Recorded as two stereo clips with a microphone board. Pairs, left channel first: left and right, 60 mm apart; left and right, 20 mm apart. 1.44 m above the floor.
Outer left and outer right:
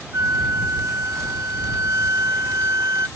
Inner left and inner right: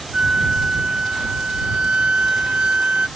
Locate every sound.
0.1 s a flute: 55° right (ahead or behind)